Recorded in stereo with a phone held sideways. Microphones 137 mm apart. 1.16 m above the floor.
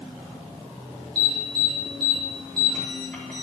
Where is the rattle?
No rattle in this recording.